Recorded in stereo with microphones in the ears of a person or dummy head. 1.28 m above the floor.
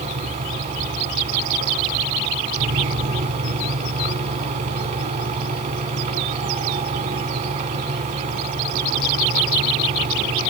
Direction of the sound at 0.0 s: 40° right (ahead or behind).